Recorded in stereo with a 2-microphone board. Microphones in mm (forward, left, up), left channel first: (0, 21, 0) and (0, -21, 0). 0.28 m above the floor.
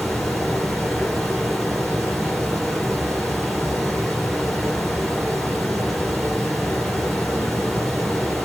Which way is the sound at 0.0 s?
Centre (ahead or behind).